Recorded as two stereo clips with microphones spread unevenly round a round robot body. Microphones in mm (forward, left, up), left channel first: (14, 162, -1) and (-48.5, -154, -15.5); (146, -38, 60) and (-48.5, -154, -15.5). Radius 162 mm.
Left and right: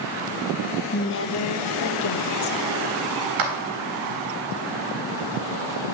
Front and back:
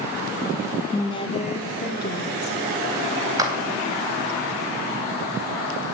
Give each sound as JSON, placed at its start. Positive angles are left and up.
{"t": 0.9, "sound": "a woman speaking", "azimuth_deg": 125, "distance_m": 1.1}
{"t": 3.4, "sound": "a clap", "azimuth_deg": -80, "distance_m": 3.5}